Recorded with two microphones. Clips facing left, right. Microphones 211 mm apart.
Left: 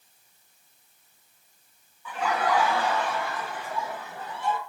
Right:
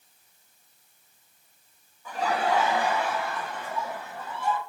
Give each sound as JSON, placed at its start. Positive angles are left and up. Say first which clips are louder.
{"t": 2.0, "sound": "laughter", "louder": "even", "side_deg": -45, "distance_m": 0.8}